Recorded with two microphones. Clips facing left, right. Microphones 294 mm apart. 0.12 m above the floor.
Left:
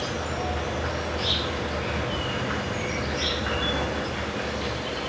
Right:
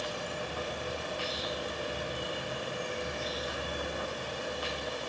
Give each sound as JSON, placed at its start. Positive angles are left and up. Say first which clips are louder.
{"t": 0.0, "sound": "an insect", "louder": "left 8 dB", "side_deg": 85, "distance_m": 1.9}